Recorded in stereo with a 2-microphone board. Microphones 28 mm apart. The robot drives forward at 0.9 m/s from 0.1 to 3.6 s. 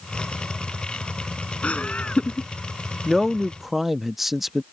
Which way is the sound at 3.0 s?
5° right (ahead or behind).